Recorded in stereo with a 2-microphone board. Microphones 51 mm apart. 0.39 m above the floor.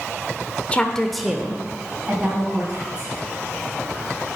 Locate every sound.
0.7 s a woman speaking: 25° left (ahead or behind), 0.8 m; by 3.1 s 25° right (ahead or behind), 3.5 m